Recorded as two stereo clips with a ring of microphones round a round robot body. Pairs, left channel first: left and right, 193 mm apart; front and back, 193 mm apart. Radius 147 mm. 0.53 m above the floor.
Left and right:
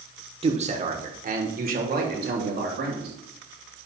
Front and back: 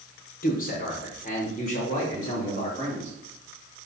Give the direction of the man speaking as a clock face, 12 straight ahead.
1 o'clock.